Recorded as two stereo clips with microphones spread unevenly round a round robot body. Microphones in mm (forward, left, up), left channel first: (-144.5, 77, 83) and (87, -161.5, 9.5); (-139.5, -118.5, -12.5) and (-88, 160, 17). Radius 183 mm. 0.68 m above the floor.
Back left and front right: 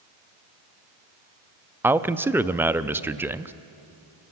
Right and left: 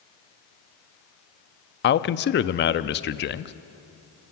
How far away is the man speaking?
About 0.6 m.